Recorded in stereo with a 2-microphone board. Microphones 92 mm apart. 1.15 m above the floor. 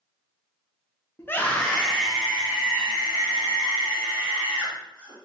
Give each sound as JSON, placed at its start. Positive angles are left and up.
{"t": 1.2, "sound": "a scream", "side_deg": 25, "distance_m": 0.6}